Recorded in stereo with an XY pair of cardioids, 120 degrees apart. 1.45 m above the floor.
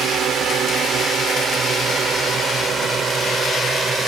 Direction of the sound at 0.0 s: 60° right.